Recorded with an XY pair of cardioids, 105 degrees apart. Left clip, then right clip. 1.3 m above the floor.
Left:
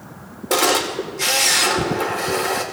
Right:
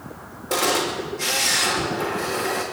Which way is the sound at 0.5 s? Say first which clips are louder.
Left 4 dB; 45° left.